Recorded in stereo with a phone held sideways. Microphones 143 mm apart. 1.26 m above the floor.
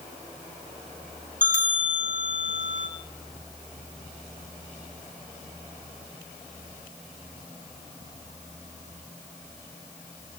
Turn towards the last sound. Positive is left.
turn(degrees=-65)  # may be behind; listen again after turning